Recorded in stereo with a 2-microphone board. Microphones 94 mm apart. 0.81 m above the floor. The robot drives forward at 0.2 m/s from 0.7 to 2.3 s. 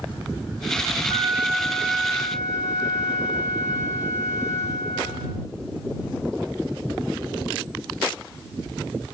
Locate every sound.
1.1 s a flute: 5° right (ahead or behind), 9 m